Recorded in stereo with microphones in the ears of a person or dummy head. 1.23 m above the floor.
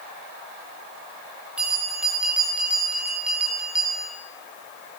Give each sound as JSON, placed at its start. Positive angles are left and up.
{"t": 1.6, "sound": "a bell", "side_deg": -5, "distance_m": 2.5}